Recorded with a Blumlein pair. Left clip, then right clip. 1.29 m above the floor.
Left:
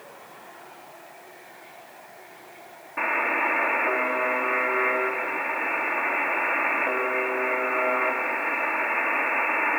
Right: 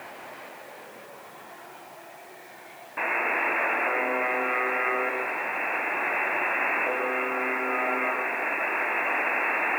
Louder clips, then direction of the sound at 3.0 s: Left 2 dB; straight ahead.